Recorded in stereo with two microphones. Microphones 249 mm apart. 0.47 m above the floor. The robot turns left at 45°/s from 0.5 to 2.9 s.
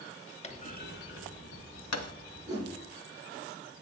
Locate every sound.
0.4 s a clunk: 25° left (ahead or behind), 0.7 m; by 2.1 s 80° left, 0.7 m
2.5 s a whoosh: 10° right (ahead or behind), 4 m; by 2.7 s 20° right (ahead or behind), 4 m